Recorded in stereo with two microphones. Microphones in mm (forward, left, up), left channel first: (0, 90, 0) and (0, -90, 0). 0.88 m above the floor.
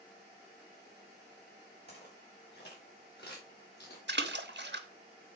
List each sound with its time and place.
1.9 s footsteps: 65° left (ahead or behind), 5 m; by 4.0 s 70° left (ahead or behind), 3.5 m
4.1 s a splash: 80° right, 1.2 m